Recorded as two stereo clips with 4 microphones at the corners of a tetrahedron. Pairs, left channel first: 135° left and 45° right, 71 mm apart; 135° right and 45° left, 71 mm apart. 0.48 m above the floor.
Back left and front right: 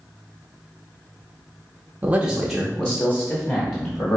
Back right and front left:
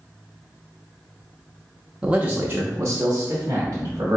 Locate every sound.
2.0 s a man speaking: 15° right, 0.7 m; by 4.2 s 90° left, 1.5 m